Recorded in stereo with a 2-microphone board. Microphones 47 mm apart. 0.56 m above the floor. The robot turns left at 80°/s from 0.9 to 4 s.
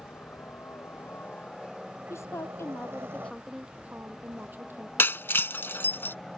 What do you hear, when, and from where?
0.0 s a helicopter: 60° left (ahead or behind); by 6.4 s 15° left (ahead or behind)
2.1 s a woman speaking: 110° left; by 4.9 s 45° right
5.0 s breaking glass: 55° left (ahead or behind)